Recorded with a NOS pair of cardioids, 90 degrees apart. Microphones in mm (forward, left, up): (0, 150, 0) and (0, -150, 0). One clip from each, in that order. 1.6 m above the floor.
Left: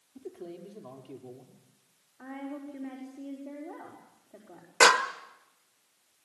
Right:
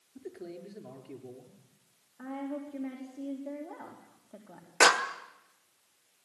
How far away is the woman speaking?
About 4.5 m.